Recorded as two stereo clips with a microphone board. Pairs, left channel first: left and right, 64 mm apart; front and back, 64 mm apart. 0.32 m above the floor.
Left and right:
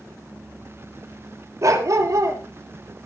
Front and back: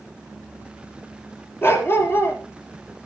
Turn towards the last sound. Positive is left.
turn(degrees=-50)